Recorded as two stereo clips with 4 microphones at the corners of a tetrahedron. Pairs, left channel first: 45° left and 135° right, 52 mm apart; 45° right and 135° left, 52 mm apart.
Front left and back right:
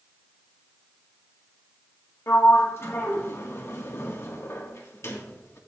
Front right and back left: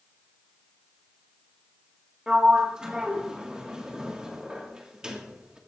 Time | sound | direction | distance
2.3 | a sliding door | 65° left | 1.7 m